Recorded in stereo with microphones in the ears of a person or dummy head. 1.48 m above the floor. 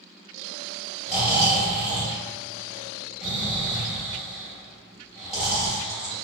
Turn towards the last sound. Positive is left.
turn(degrees=-5)  # may be behind; listen again after turning